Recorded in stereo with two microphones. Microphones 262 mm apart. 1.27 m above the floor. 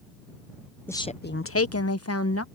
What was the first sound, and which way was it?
A woman speaking, 10° left (ahead or behind).